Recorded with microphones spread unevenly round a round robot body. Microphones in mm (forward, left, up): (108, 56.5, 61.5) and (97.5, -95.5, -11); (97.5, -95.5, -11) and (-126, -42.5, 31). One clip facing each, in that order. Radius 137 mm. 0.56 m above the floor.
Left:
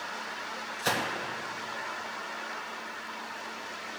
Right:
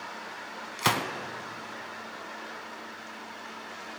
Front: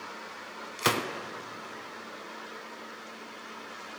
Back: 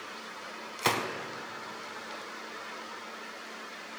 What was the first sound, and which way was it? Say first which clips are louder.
A gunshot: right 2 dB, front 2 dB; 95° right.